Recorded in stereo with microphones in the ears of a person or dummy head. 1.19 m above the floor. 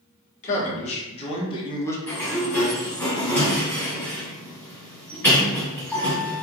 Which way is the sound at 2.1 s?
10° left (ahead or behind).